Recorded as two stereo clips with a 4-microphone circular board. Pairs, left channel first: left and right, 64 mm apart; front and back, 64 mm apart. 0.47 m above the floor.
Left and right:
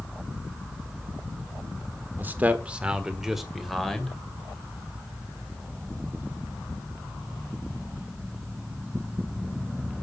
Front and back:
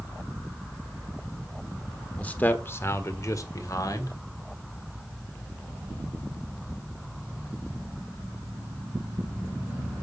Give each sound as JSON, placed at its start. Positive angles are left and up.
{"t": 2.2, "sound": "a man speaking", "azimuth_deg": -60, "distance_m": 1.3}